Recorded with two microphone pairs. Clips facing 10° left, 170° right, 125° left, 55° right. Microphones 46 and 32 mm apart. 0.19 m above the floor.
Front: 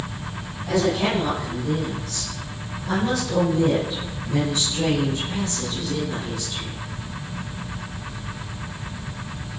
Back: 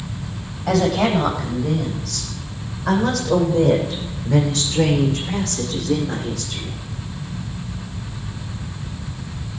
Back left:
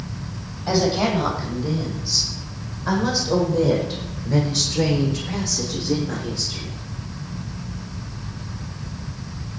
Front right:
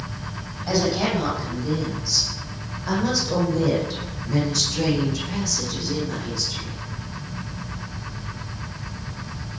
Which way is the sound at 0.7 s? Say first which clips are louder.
Back 4 dB, back left 2 dB; straight behind.